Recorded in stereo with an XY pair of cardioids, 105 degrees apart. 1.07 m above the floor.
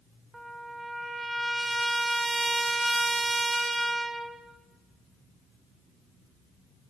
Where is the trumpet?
15° right, 0.7 m.